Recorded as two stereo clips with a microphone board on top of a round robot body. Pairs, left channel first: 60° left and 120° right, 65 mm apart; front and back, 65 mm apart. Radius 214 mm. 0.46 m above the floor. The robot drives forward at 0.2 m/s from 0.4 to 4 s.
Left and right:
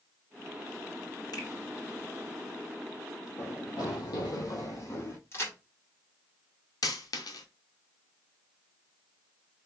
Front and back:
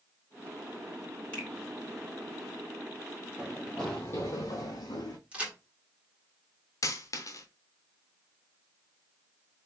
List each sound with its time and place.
1.3 s a finger snap: 70° left, 2.5 m
3.4 s running footsteps: 105° left, 1.1 m; by 5.2 s 5° left, 1.5 m
5.3 s a crack: 105° left, 2 m
6.8 s a dropped coin: 35° left, 0.8 m